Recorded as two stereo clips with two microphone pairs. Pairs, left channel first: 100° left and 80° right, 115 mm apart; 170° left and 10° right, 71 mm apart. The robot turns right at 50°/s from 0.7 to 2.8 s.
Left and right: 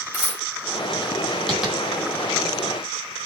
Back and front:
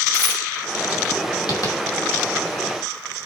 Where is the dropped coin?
110° left, 6.5 m.